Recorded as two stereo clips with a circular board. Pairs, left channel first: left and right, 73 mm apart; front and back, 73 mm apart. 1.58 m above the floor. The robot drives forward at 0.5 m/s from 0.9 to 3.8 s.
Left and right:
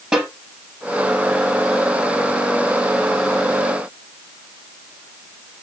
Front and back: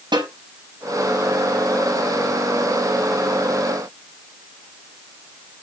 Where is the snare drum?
165° right, 5.5 m.